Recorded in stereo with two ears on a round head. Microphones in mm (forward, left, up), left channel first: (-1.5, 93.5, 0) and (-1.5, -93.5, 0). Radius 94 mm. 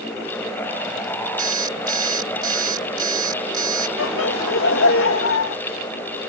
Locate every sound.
1.4 s an alarm clock: 20° right (ahead or behind)
4.0 s laughter: 65° left (ahead or behind)